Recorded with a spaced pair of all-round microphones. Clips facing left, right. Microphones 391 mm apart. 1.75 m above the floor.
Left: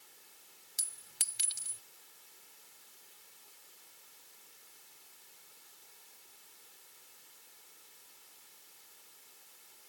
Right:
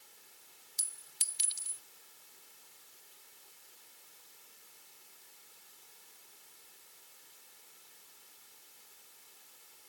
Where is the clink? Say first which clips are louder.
Left 3 dB; 80° left.